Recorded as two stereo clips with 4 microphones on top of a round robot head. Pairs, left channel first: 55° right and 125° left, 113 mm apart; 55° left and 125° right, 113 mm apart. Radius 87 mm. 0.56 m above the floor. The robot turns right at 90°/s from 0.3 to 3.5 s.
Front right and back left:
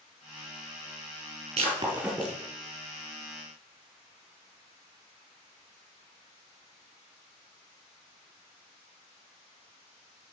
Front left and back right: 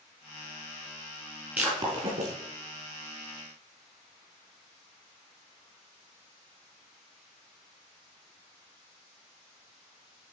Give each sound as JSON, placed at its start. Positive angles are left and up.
{"t": 1.6, "sound": "breaking glass", "azimuth_deg": 160, "distance_m": 4.5}